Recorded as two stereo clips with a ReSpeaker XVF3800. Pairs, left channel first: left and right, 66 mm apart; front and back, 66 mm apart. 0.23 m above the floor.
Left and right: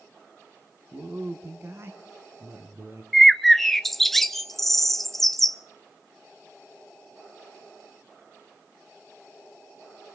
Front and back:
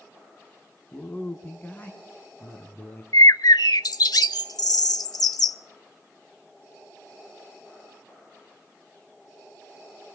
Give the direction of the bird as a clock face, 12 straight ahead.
12 o'clock.